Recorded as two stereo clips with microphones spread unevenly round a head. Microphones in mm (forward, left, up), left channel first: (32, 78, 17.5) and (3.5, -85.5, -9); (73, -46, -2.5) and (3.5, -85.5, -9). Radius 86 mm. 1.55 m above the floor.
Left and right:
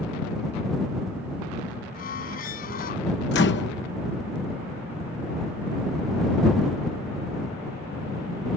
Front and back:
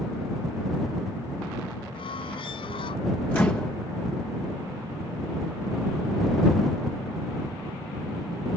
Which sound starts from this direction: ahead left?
A squeak, at 1.9 s.